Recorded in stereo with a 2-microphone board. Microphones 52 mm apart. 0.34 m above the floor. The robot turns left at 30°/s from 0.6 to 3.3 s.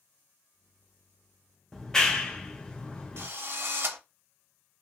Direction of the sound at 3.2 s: 50° right (ahead or behind).